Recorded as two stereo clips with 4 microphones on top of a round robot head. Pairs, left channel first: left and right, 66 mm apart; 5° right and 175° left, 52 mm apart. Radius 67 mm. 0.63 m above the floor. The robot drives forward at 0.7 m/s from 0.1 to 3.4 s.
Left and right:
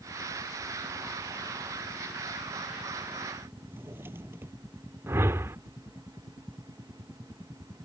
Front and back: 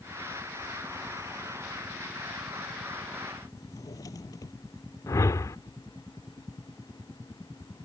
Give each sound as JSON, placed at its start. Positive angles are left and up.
{"t": 3.6, "sound": "a drawer", "azimuth_deg": -25}
{"t": 5.1, "sound": "a whoosh", "azimuth_deg": -35}